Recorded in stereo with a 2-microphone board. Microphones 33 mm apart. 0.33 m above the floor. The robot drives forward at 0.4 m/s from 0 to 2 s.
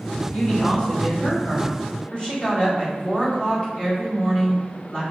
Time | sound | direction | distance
0.3 | a woman speaking | 45° left (ahead or behind) | 2 m